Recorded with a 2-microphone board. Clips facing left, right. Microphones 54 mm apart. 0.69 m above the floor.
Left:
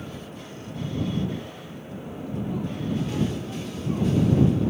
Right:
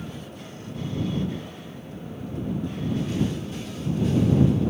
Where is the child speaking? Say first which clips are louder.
Left 2 dB; 70° left (ahead or behind).